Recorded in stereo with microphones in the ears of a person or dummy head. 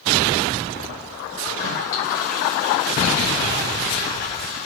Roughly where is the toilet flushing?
Left.